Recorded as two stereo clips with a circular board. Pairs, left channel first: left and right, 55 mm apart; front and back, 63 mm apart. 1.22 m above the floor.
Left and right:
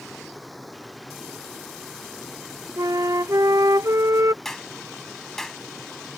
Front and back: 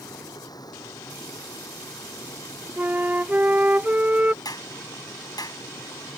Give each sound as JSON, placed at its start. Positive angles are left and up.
{"t": 0.0, "sound": "running water", "azimuth_deg": 0}
{"t": 2.8, "sound": "a flute", "azimuth_deg": -110}
{"t": 4.5, "sound": "a clap", "azimuth_deg": 5}